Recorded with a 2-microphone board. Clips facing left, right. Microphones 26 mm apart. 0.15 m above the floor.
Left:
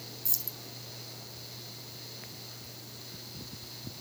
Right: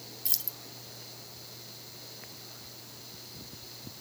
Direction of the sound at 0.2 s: 55° right (ahead or behind).